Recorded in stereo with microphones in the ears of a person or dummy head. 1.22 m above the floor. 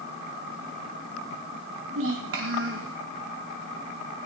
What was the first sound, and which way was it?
A child speaking, 75° right (ahead or behind).